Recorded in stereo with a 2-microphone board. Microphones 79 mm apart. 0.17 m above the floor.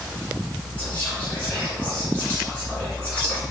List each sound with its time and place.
0.8 s whispering: 20° left (ahead or behind), 1.4 m